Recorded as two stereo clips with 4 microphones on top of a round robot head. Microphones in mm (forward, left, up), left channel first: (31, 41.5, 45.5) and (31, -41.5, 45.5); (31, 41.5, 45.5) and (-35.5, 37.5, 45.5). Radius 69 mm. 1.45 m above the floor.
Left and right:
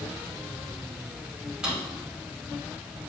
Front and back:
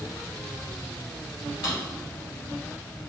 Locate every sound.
1.6 s a drawer: 10° right, 3 m